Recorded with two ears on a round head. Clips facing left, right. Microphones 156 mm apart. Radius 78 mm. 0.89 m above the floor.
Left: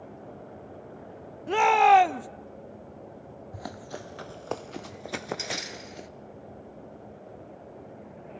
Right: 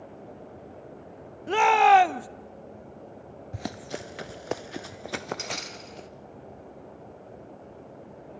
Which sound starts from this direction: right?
Running footsteps, at 3.5 s.